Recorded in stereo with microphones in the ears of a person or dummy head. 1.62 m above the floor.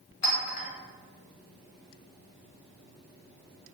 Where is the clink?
35° left (ahead or behind), 0.7 m.